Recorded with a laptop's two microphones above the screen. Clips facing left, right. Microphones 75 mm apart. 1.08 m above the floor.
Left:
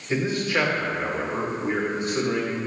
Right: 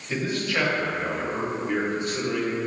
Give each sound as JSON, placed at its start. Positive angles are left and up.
{"t": 0.1, "sound": "a man speaking", "side_deg": 20, "distance_m": 1.1}